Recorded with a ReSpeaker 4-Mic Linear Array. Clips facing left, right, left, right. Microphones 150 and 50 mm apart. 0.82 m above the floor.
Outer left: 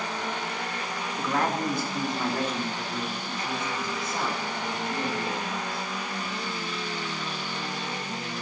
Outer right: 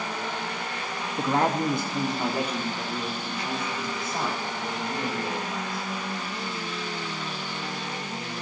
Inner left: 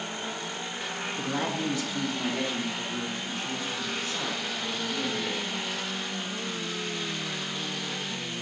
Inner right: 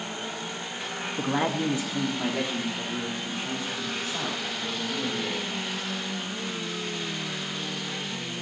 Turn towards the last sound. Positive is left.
turn(degrees=-5)  # may be behind; listen again after turning